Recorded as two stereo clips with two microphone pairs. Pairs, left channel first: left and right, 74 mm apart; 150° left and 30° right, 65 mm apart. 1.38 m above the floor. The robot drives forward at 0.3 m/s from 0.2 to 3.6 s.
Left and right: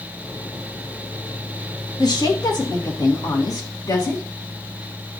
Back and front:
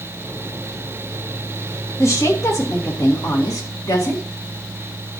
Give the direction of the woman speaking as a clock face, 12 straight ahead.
8 o'clock.